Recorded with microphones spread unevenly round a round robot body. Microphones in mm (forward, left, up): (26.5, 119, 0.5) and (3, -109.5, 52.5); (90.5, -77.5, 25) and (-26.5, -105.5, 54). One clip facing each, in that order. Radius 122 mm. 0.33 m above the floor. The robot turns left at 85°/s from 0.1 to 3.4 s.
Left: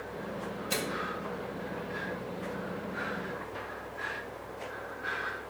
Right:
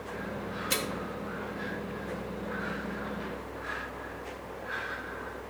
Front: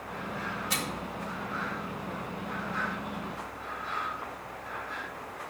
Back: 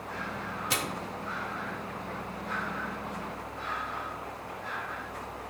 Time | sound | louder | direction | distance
0.7 | a microwave | even, back 1 dB | 165° right | 1.0 m